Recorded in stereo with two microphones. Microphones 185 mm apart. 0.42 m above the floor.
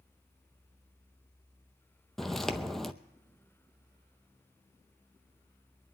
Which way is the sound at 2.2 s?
Centre (ahead or behind).